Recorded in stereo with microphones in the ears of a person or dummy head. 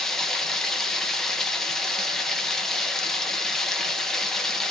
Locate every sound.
0.0 s running water: centre (ahead or behind), 1.2 m